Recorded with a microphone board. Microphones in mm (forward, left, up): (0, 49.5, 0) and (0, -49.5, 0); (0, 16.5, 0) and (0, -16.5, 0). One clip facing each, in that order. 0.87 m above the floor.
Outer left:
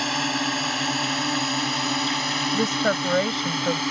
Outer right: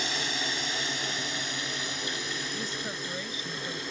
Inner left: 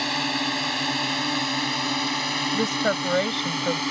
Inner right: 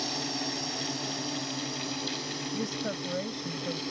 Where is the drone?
60° left (ahead or behind); by 3.9 s 75° left (ahead or behind).